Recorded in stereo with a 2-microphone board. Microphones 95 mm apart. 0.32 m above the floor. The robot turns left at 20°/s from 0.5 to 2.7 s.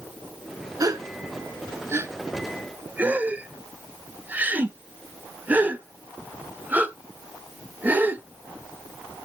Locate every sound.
0.8 s a gasp: 35° right (ahead or behind), 0.8 m; by 8.2 s 15° right (ahead or behind), 0.8 m